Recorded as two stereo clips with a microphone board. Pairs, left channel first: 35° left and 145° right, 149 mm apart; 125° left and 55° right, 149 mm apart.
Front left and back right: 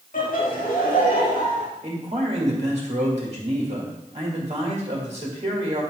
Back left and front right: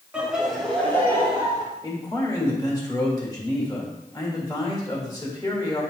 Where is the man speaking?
175° right, 1.9 m.